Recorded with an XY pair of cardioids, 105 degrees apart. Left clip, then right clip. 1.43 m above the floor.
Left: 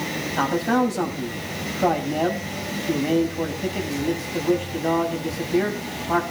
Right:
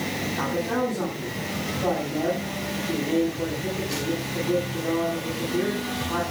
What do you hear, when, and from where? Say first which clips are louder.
0.3 s a man speaking: left 6 dB; 65° left, 8 m